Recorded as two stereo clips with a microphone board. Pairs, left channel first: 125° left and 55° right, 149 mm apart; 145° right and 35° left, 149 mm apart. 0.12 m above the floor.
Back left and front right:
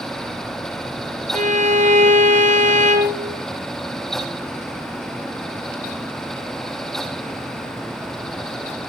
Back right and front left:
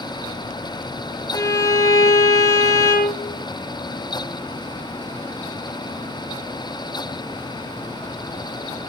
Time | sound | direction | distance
1.3 | a violin | 80° right | 2.5 m